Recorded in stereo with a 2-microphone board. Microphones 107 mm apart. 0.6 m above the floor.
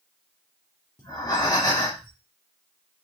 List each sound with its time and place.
1.0 s breathing: 35° left (ahead or behind), 1.7 m